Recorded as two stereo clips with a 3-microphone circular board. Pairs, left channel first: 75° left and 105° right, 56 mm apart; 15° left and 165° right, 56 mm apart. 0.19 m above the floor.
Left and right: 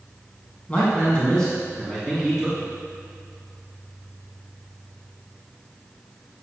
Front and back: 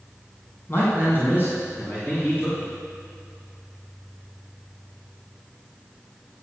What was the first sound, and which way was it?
A man speaking, 20° left.